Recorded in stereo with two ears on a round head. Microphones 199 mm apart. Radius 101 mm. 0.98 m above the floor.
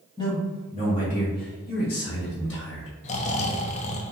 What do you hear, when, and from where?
0.2 s a man speaking: 20° left (ahead or behind), 1.8 m; by 2.9 s 60° left (ahead or behind), 2 m
3.0 s snoring: 30° left (ahead or behind), 0.5 m